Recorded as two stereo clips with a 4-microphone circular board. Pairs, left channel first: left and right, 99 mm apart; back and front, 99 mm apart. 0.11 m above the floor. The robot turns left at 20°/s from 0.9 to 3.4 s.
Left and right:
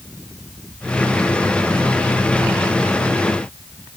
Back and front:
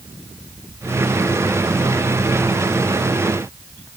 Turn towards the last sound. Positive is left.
No sound to turn to.